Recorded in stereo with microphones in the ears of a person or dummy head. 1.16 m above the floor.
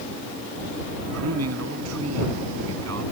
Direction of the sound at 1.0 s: 90° right.